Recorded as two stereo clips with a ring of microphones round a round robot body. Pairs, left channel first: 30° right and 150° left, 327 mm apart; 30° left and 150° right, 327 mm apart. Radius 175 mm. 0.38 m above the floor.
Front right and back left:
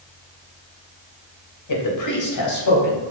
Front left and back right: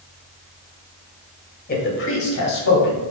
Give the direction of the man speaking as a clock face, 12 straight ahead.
1 o'clock.